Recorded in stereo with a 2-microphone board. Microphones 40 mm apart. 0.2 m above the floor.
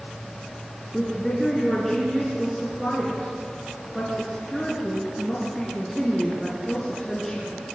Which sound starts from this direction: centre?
A woman speaking, at 0.9 s.